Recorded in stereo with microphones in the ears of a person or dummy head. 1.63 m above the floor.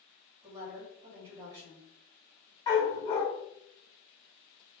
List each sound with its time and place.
0.4 s a woman speaking: 15° right (ahead or behind), 2 m
2.7 s a dog barking: 25° left (ahead or behind), 1.7 m